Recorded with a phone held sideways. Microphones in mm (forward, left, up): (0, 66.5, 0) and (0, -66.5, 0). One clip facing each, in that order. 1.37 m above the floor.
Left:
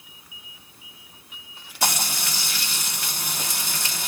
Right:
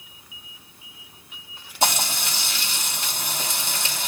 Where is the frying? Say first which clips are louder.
Right 3 dB; 25° right (ahead or behind), 3 m.